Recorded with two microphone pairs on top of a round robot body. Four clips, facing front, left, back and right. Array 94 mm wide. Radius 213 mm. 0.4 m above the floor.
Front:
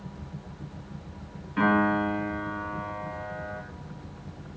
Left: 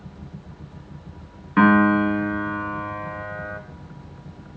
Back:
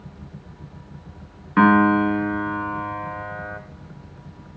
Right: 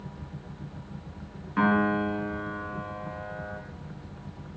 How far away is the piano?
About 4 m.